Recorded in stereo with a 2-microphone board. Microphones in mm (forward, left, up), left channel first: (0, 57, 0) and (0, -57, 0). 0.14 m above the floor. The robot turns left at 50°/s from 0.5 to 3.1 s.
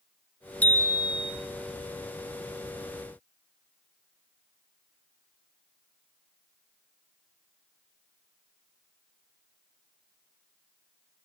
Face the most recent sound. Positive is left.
turn(degrees=40)